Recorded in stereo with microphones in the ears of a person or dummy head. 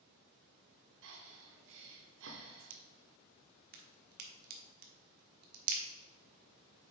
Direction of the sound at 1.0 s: 65° right (ahead or behind).